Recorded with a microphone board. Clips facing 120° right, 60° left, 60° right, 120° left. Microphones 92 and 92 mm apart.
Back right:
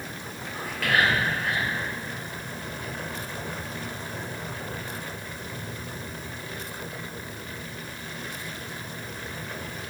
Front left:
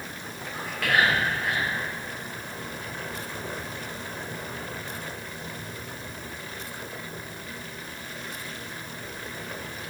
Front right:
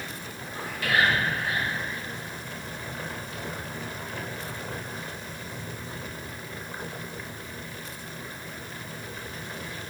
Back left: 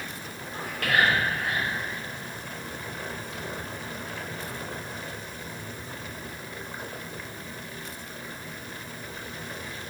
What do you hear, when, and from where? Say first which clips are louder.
0.5 s whispering: even, back left 1 dB; 150° left, 1.1 m